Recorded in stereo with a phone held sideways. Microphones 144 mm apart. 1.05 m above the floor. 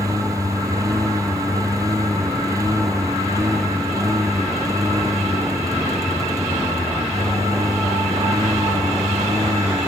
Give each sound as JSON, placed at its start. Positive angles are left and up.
{"t": 0.0, "sound": "a lawn mower", "side_deg": -25}